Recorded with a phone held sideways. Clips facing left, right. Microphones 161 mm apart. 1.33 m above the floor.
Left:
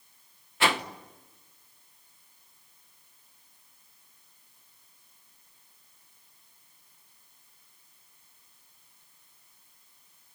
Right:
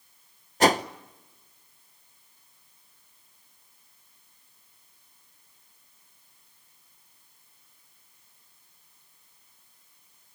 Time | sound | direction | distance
0.6 | a whoosh | 40° right (ahead or behind) | 0.9 m